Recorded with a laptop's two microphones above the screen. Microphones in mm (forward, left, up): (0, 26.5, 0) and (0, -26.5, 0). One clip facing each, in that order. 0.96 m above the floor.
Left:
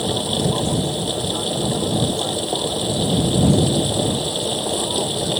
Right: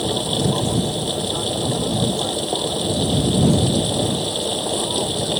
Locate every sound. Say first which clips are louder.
0.0 s a machine running: even; centre (ahead or behind)